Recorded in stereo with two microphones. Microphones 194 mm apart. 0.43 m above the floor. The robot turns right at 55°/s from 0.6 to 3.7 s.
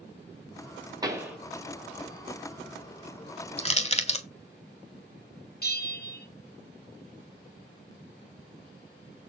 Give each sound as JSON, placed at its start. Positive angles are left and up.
{"t": 1.0, "sound": "a pop", "side_deg": -20, "distance_m": 2.0}
{"t": 3.6, "sound": "crushing", "side_deg": 30, "distance_m": 1.4}
{"t": 5.6, "sound": "a bell", "side_deg": 50, "distance_m": 3.0}